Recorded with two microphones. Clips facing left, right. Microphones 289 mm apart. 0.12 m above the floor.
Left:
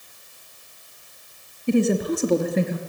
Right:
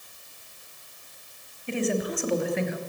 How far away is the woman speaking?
About 2 m.